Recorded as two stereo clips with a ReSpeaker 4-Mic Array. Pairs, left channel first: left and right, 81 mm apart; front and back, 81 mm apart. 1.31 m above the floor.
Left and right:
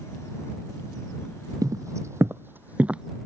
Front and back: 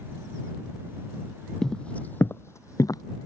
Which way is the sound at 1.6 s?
80° right.